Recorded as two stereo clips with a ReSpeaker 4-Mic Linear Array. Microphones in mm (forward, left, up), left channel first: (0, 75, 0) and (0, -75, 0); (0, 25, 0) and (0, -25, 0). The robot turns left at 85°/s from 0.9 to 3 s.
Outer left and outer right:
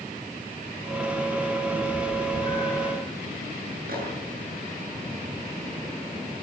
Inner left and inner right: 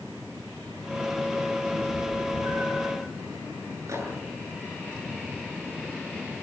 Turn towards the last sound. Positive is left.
turn(degrees=-75)  # may be behind; listen again after turning